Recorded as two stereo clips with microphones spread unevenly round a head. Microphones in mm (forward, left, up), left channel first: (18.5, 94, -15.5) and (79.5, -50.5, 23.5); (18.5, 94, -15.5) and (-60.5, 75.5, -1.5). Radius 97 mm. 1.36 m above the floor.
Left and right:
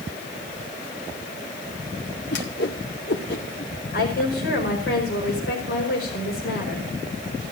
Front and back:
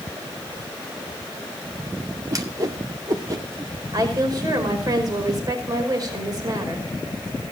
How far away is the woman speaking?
About 5 m.